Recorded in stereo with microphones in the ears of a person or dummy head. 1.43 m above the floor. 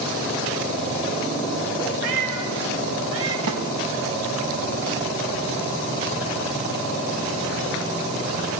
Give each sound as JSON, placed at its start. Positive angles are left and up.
{"t": 2.0, "sound": "a cat meowing", "side_deg": -70, "distance_m": 3.0}
{"t": 3.5, "sound": "a snare drum", "side_deg": -70, "distance_m": 3.5}